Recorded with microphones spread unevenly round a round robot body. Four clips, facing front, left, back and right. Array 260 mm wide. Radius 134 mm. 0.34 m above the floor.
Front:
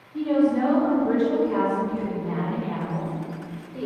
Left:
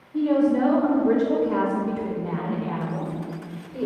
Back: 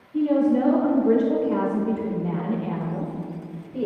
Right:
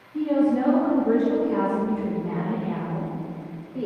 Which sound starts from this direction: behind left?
A woman speaking, at 0.1 s.